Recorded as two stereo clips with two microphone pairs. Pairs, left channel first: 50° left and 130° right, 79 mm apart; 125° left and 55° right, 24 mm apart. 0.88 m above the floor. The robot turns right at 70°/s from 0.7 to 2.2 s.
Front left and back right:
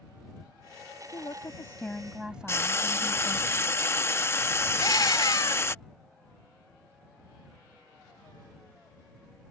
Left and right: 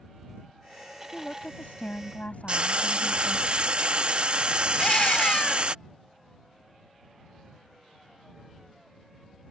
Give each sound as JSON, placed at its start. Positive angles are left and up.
{"t": 1.1, "sound": "a woman speaking", "azimuth_deg": 75}
{"t": 2.5, "sound": "frying", "azimuth_deg": -10}
{"t": 4.8, "sound": "a scream", "azimuth_deg": 80}